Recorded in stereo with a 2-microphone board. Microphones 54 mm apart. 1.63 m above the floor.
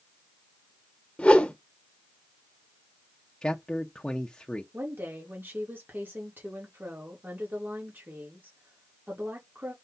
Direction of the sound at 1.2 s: 20° left (ahead or behind).